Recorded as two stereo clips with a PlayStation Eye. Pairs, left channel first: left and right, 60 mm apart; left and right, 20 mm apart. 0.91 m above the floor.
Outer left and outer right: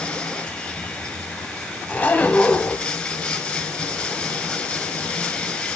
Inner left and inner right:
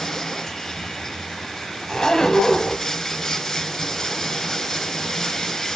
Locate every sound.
0.0 s running water: 20° left (ahead or behind), 1.0 m
1.9 s a zipper: 30° left (ahead or behind), 0.9 m